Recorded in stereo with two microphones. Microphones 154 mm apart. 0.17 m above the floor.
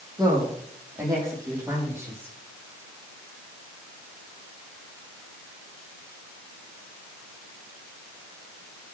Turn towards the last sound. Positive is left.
turn(degrees=-15)  # may be behind; listen again after turning